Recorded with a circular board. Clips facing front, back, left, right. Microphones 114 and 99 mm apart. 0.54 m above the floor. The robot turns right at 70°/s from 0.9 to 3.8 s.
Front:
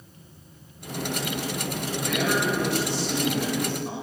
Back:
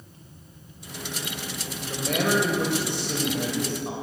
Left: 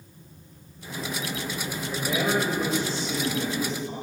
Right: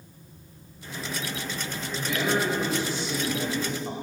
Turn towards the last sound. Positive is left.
turn(degrees=-100)